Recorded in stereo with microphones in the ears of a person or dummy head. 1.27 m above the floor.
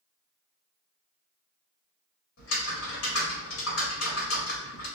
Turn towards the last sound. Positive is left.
turn(degrees=75)  # may be behind; listen again after turning